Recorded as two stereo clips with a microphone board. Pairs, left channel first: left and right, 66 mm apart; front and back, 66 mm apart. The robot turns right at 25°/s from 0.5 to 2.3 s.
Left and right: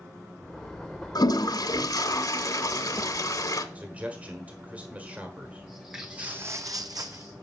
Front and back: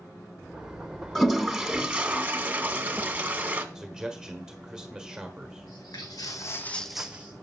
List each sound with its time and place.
1.1 s a toilet flushing: 85° left, 0.8 m; by 3.6 s 115° left, 0.8 m
3.8 s a man speaking: 115° right, 1.3 m
5.7 s footsteps: straight ahead, 1.5 m; by 7.3 s 120° right, 1.1 m